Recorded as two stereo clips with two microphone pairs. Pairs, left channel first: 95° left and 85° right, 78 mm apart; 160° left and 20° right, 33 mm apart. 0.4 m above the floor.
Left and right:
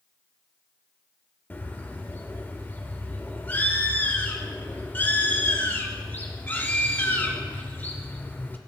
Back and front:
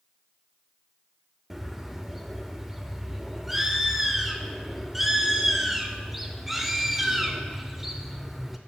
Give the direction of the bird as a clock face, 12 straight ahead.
10 o'clock.